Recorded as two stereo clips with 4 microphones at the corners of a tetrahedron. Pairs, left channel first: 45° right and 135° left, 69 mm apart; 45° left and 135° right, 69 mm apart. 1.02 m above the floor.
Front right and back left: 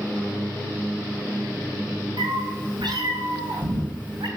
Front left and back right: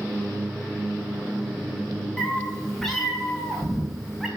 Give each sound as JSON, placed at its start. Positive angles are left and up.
{"t": 2.2, "sound": "a cat meowing", "azimuth_deg": 125, "distance_m": 6.0}